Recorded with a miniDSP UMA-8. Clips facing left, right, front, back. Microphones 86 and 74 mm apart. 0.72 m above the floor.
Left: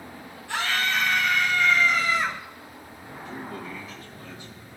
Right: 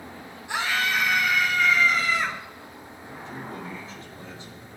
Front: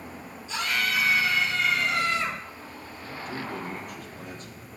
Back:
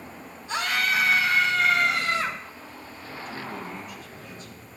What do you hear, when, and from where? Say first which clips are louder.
0.5 s a scream: right 1 dB, back 2 dB; 160° right, 3 m; by 2.4 s straight behind, 3.5 m
3.2 s a man speaking: left 1 dB, front 2 dB; 35° right, 3.5 m